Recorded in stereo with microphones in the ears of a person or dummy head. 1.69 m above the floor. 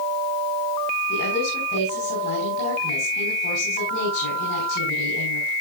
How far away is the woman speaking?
About 5 m.